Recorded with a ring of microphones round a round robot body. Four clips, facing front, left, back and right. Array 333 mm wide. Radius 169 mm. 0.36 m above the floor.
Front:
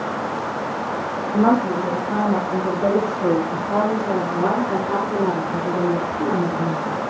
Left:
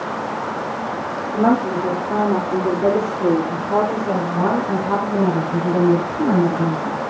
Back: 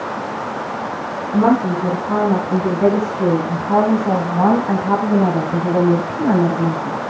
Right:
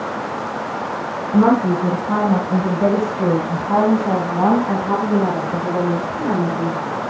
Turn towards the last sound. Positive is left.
turn(degrees=170)